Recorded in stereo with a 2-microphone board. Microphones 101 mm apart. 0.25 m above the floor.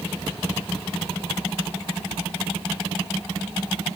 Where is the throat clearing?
No throat clearing in this recording.